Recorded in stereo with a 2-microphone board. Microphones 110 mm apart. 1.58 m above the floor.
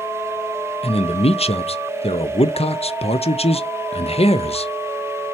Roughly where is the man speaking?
Left.